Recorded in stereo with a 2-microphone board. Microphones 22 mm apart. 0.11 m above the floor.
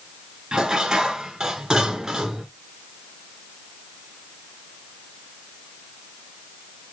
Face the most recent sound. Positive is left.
turn(degrees=-25)  # may be behind; listen again after turning